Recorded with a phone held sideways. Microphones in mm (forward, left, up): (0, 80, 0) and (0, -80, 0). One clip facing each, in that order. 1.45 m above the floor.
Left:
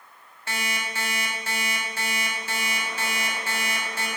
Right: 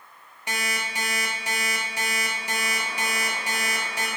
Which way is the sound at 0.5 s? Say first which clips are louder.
Right 1 dB; 15° right (ahead or behind).